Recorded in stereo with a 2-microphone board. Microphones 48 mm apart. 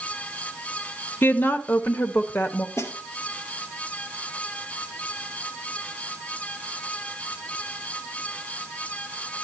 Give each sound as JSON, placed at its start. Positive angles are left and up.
{"t": 1.2, "sound": "a woman speaking", "side_deg": 50, "distance_m": 1.2}
{"t": 2.8, "sound": "a snare drum", "side_deg": 85, "distance_m": 2.0}